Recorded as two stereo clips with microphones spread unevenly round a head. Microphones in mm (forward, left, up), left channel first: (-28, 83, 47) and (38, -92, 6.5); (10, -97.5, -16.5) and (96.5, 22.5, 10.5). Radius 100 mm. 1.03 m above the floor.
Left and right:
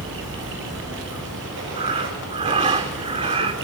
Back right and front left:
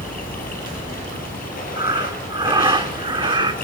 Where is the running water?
100° right, 5.5 m.